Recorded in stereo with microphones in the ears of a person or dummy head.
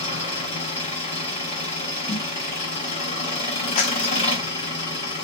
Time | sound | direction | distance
0.0 | an engine running | 30° left (ahead or behind) | 1.8 m
2.1 | a snare drum | 25° left (ahead or behind) | 1.4 m
3.8 | a clap | 40° left (ahead or behind) | 0.7 m